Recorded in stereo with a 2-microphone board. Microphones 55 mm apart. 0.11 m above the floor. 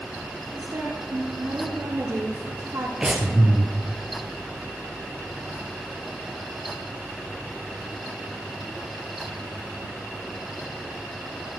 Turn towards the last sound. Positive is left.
turn(degrees=-15)  # may be behind; listen again after turning